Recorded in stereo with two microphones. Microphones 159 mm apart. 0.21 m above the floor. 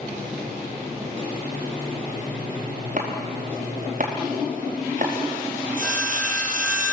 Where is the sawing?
60° right (ahead or behind), 3 m.